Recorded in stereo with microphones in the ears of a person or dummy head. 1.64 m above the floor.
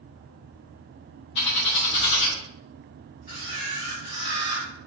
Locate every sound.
1.4 s a bird: 35° left (ahead or behind), 2 m
3.3 s a camera shutter: 20° right (ahead or behind), 1.7 m